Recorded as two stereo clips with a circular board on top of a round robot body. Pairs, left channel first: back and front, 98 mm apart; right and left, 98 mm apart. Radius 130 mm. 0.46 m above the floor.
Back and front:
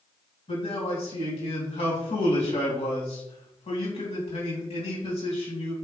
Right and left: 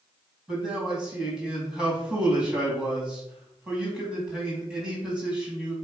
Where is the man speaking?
170° left, 3.5 m.